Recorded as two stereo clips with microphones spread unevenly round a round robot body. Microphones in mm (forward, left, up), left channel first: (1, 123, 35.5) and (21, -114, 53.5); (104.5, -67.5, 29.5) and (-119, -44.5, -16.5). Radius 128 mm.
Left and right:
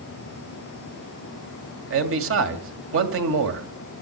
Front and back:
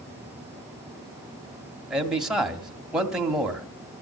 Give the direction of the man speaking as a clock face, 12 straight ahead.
4 o'clock.